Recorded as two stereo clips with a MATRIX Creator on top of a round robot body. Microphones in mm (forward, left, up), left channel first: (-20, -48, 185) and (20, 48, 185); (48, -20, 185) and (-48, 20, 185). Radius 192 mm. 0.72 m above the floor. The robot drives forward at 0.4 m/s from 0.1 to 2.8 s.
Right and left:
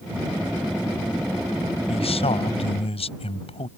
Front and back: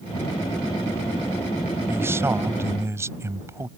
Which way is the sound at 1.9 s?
135° right.